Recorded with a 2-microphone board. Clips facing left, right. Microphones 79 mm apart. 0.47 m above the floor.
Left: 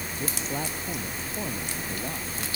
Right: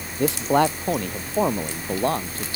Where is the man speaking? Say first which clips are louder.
Right 14 dB; 80° right.